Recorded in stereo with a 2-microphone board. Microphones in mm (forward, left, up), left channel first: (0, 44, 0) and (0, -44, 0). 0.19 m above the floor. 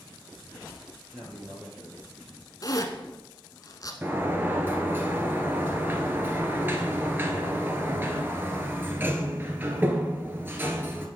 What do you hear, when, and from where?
1.1 s a man speaking: 10° left (ahead or behind), 3.5 m
2.6 s a zipper: 45° left (ahead or behind), 1.1 m
4.0 s a sliding door: 25° right (ahead or behind), 1.4 m